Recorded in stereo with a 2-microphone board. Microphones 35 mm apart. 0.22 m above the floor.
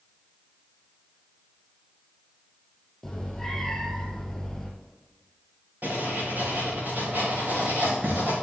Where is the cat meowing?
5° left (ahead or behind), 3 m.